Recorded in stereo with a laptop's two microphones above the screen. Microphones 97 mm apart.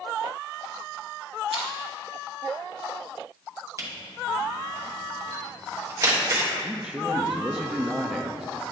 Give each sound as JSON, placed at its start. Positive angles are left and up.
{"t": 1.5, "sound": "crushing", "side_deg": -70, "distance_m": 1.0}
{"t": 3.8, "sound": "a camera shutter", "side_deg": -35, "distance_m": 1.0}
{"t": 6.6, "sound": "a man speaking", "side_deg": -5, "distance_m": 0.6}